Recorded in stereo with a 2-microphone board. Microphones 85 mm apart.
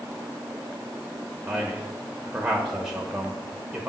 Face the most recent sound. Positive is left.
turn(degrees=-10)  # may be behind; listen again after turning